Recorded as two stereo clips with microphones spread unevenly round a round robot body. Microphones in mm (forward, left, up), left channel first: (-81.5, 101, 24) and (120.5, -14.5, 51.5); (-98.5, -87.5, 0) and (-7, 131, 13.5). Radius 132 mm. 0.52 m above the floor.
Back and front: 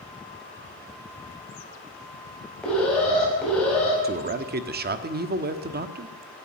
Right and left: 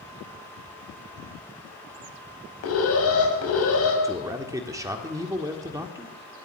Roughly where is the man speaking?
Ahead.